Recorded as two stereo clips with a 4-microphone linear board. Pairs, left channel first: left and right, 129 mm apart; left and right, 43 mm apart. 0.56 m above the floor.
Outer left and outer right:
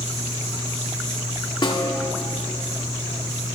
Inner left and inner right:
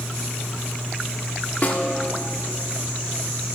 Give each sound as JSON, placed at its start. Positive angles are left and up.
{"t": 1.6, "sound": "a snare drum", "side_deg": 40, "distance_m": 1.0}